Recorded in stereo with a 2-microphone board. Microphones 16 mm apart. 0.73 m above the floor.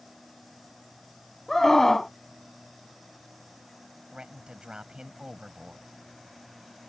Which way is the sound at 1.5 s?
30° left (ahead or behind).